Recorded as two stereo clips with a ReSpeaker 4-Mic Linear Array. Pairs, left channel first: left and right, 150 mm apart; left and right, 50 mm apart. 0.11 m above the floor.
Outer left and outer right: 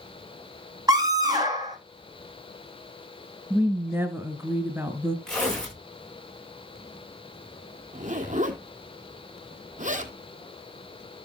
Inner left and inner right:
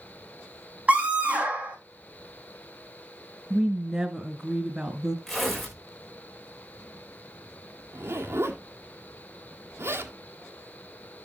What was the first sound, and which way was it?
A scream, 25° right (ahead or behind).